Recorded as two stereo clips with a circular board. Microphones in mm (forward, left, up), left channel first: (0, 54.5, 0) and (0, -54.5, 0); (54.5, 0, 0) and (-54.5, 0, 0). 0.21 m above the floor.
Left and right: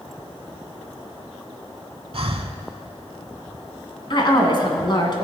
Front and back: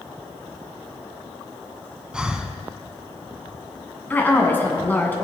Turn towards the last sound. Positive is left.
turn(degrees=65)